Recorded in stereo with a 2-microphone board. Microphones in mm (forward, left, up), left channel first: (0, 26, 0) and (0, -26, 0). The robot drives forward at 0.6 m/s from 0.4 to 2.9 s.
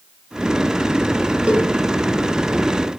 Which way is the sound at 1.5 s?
25° right (ahead or behind).